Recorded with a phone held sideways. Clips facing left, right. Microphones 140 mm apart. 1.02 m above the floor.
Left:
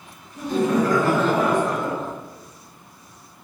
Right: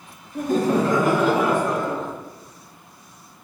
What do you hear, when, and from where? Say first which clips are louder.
0.3 s laughter: right 1 dB; 60° right (ahead or behind), 0.5 m; by 2.1 s 5° left (ahead or behind), 1.4 m